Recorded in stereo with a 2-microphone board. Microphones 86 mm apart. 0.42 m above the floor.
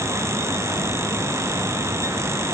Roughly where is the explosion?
I don't hear an explosion.